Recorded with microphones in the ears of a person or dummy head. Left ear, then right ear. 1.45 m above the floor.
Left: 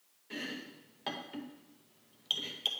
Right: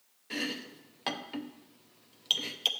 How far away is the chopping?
About 0.7 m.